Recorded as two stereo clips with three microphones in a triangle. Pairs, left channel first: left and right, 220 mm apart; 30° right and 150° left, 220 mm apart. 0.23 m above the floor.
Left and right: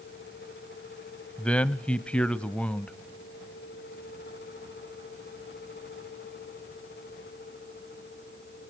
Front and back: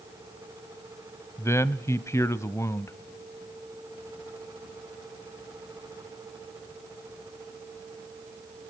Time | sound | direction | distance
1.4 | a man speaking | 15° left | 0.9 m